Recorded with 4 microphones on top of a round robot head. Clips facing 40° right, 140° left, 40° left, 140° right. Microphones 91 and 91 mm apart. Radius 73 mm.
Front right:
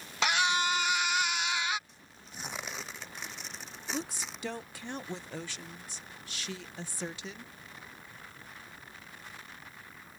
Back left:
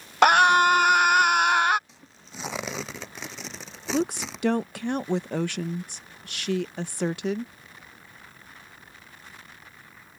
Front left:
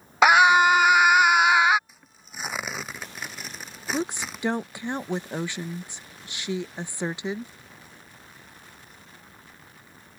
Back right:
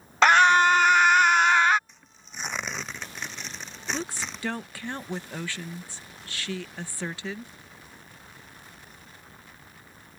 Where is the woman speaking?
110° left.